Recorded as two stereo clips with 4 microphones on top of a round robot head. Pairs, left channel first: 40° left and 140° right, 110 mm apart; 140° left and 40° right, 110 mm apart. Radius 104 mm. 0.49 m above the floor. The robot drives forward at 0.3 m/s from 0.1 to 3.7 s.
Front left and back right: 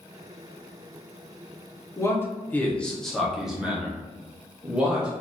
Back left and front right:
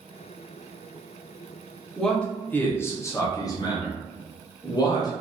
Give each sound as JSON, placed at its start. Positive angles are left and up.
{"t": 2.0, "sound": "a man speaking", "azimuth_deg": 60, "distance_m": 0.7}